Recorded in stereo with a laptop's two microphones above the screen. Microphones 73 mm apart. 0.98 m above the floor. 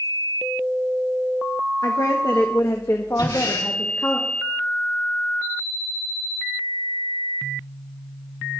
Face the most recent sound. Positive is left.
turn(degrees=85)